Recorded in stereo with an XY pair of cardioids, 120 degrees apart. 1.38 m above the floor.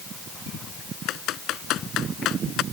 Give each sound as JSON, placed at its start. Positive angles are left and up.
{"t": 1.1, "sound": "typing on a keyboard", "azimuth_deg": 70}